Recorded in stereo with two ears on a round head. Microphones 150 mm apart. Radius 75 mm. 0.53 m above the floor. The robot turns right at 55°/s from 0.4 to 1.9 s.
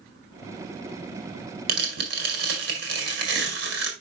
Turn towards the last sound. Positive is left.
turn(degrees=-75)  # may be behind; listen again after turning